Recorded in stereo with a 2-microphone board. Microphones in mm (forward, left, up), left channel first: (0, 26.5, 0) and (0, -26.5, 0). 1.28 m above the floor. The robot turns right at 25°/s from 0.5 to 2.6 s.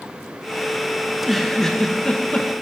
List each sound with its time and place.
1.1 s a giggle: 5° right, 1.4 m; by 2.5 s 30° left, 1.4 m